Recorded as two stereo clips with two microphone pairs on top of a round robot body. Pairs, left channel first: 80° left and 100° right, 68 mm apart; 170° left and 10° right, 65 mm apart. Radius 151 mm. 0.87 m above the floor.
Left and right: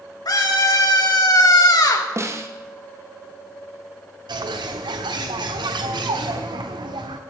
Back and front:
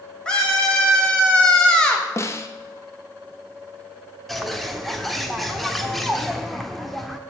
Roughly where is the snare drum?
Behind right.